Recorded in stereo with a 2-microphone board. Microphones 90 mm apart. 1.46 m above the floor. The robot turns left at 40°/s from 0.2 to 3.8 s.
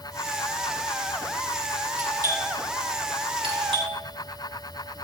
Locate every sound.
2.0 s a doorbell: 35° right (ahead or behind), 5 m; by 4.0 s 75° right (ahead or behind), 5 m